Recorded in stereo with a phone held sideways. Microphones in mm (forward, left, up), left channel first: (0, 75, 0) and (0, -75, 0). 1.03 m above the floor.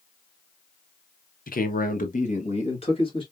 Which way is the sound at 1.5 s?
70° left (ahead or behind).